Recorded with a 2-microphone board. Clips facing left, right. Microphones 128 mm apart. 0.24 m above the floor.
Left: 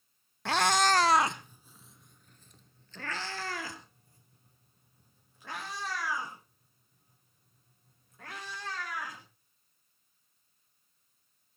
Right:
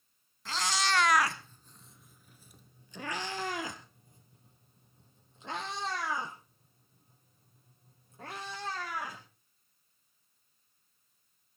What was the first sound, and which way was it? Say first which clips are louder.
A cat meowing: left 7 dB; 65° left (ahead or behind).